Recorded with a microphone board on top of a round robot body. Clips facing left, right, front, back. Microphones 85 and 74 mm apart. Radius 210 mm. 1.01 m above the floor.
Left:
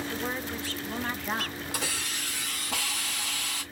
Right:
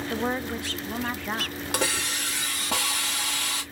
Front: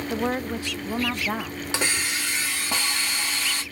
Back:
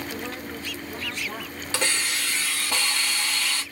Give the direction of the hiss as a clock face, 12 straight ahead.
2 o'clock.